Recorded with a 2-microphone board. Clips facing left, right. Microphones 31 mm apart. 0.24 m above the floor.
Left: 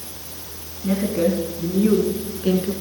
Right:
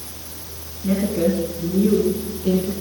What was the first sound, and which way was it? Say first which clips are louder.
A woman speaking: even; 10° left (ahead or behind).